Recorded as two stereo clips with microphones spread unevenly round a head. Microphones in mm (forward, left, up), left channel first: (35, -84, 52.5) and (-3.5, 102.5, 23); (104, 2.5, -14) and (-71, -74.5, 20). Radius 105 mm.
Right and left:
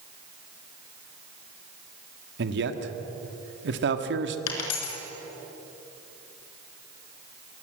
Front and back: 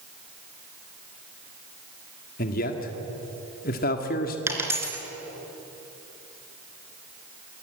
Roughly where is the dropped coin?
Right.